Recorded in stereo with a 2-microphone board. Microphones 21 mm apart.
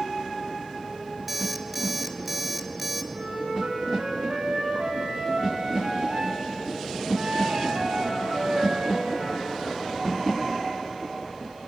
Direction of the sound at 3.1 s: 60° right (ahead or behind).